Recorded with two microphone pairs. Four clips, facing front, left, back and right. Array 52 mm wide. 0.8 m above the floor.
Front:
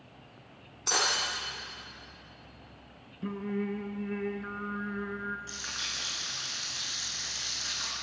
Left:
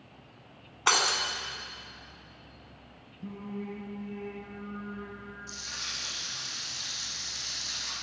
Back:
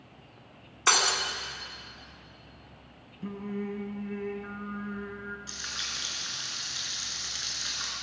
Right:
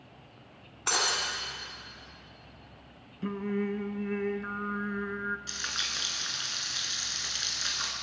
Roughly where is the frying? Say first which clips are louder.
Right 5 dB, even; right.